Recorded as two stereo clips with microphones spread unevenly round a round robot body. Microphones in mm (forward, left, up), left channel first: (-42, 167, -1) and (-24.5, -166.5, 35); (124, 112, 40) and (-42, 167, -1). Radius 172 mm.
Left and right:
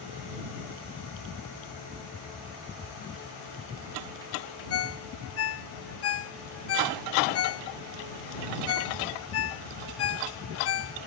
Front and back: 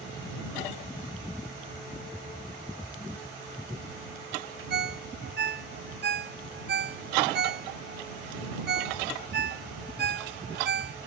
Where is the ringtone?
140° left.